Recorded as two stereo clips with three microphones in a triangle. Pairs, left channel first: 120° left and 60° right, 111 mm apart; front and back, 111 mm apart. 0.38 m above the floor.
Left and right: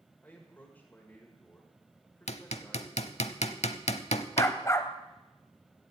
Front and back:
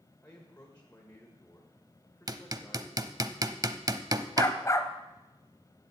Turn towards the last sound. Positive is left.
turn(degrees=60)